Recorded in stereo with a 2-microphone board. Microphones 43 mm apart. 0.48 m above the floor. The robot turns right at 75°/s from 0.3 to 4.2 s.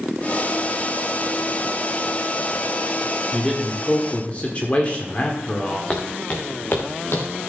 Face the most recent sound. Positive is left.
turn(degrees=65)  # may be behind; listen again after turning